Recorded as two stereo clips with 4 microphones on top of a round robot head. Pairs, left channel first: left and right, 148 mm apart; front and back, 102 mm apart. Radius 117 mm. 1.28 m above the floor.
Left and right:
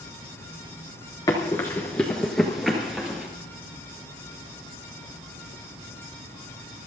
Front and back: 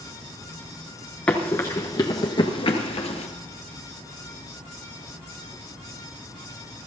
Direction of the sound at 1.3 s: 50° left.